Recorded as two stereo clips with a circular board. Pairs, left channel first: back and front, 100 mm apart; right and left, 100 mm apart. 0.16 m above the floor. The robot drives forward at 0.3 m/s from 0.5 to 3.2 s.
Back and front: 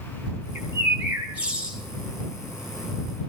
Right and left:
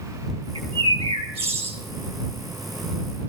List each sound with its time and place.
0.6 s a bird: 70° left, 2.5 m; by 1.8 s 80° left, 2.5 m